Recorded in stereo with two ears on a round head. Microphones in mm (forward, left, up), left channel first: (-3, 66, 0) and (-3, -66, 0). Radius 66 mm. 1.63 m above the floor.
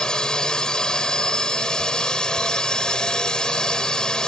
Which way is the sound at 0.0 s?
5° left (ahead or behind).